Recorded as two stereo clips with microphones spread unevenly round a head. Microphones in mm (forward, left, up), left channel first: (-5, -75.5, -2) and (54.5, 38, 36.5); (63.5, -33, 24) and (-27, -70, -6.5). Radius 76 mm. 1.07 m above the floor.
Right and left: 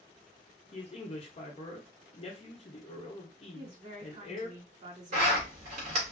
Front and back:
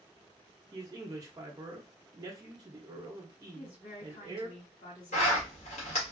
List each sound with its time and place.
0.7 s a man speaking: 120° right, 0.9 m
3.5 s a woman speaking: 40° left, 2 m
5.1 s a zipper: 35° left, 1.5 m